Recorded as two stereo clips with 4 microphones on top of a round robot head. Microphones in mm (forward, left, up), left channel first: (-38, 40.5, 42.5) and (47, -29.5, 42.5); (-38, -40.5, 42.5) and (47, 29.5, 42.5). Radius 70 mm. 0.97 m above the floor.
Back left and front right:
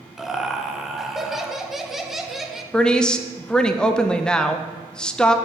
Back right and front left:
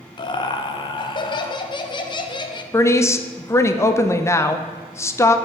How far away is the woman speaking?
About 0.5 m.